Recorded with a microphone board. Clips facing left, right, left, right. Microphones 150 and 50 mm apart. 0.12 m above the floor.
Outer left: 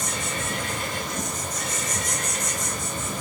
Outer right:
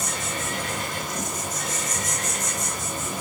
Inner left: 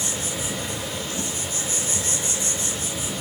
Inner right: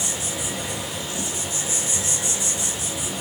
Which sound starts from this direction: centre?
An insect, at 0.0 s.